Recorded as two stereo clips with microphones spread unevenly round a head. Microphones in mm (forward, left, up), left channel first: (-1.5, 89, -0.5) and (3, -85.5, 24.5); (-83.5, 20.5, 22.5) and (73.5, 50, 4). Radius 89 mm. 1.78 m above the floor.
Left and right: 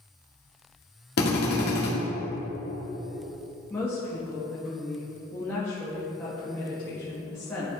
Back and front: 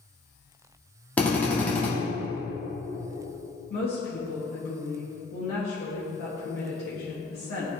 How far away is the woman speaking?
About 1.7 m.